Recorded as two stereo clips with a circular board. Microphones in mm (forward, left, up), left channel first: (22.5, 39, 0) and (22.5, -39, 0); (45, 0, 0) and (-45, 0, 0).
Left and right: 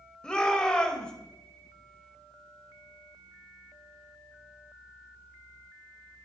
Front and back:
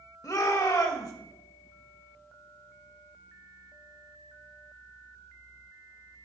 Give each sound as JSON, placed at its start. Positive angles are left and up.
{"t": 0.2, "sound": "a shout", "azimuth_deg": 15, "distance_m": 1.5}